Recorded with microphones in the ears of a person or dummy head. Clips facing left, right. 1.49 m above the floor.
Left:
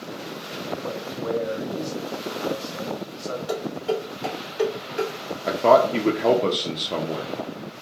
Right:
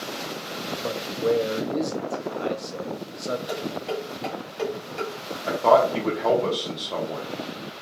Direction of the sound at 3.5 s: 10° left (ahead or behind).